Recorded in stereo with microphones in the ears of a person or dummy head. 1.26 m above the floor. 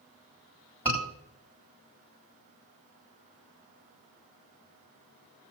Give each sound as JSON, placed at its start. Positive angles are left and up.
{"t": 0.8, "sound": "a scream", "side_deg": 10, "distance_m": 4.0}